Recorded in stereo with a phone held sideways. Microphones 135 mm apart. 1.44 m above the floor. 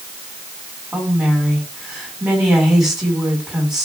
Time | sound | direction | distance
0.9 | a woman speaking | 5° right (ahead or behind) | 5.5 m